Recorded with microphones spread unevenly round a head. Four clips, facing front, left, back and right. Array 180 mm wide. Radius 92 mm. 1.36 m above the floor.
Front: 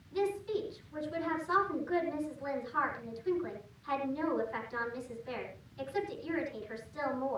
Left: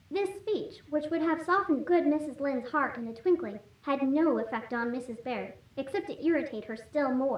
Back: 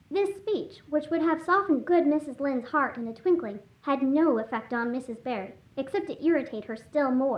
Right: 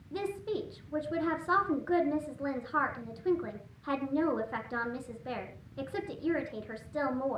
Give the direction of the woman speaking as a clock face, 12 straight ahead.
7 o'clock.